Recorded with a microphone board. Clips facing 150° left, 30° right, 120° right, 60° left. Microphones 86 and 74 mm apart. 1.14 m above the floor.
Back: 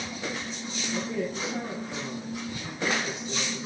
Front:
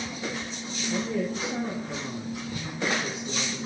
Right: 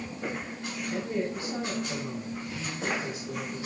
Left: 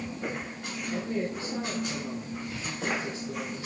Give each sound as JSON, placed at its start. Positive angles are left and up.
{"t": 0.9, "sound": "a woman speaking", "azimuth_deg": -40, "distance_m": 7.0}